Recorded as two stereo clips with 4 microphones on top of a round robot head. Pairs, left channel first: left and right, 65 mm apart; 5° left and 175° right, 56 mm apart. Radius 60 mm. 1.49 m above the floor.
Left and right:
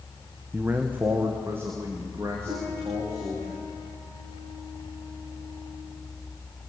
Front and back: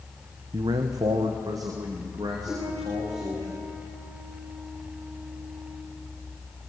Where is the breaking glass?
I don't hear breaking glass.